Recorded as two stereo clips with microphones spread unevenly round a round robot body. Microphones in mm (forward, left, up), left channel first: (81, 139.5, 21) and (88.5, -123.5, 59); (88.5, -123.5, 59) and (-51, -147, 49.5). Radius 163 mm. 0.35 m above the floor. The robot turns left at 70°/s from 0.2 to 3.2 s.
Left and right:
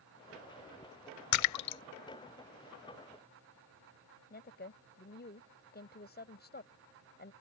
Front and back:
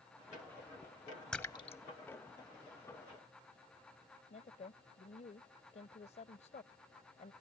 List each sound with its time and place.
1.3 s a splash: 95° left; by 1.8 s 60° left
4.3 s a woman speaking: 50° left